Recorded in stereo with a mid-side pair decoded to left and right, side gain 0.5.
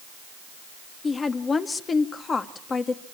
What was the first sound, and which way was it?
A woman speaking, 35° left.